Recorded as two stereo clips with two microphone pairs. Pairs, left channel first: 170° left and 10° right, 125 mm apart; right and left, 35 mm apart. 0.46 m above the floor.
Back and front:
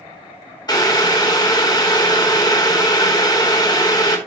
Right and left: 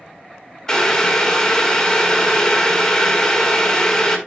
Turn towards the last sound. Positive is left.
turn(degrees=-155)